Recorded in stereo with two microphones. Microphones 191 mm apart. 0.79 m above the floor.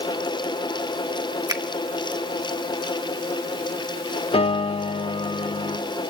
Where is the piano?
30° left (ahead or behind), 0.6 m.